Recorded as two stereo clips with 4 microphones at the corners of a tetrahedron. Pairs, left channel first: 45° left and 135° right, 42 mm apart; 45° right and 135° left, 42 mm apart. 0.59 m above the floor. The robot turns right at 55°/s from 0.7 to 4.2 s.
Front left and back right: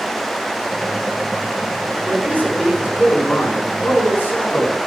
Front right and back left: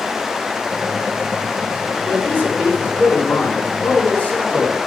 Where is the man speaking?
105° right, 7.5 m; by 4.8 s 10° left, 7.5 m.